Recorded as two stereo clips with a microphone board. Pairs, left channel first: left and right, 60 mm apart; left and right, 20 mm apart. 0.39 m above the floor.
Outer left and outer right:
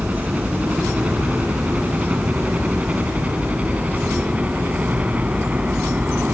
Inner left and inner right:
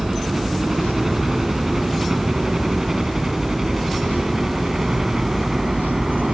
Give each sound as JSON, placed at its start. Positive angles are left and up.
{"t": 0.0, "sound": "a helicopter", "side_deg": -20}